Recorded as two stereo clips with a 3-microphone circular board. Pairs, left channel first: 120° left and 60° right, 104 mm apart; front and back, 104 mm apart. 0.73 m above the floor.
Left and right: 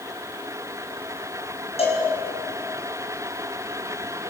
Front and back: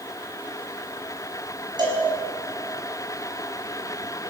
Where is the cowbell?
135° left, 5.5 m.